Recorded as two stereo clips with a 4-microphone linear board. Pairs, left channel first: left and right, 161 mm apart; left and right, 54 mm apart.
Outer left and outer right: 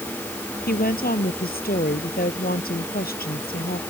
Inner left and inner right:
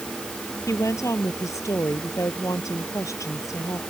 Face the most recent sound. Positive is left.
turn(degrees=60)  # may be behind; listen again after turning